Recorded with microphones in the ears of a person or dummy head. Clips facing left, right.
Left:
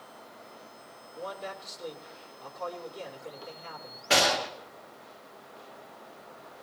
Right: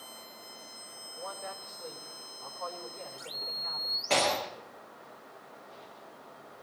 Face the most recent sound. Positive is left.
turn(degrees=5)  # may be behind; listen again after turning